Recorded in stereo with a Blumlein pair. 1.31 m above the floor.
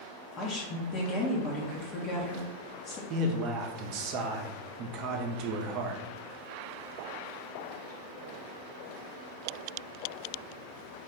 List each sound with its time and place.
0.4 s a woman speaking: 25° left, 0.7 m
3.1 s a man speaking: 40° right, 0.6 m